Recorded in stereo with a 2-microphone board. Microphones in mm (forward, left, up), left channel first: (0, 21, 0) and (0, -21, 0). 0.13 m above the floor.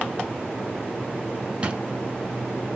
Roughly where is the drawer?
Right.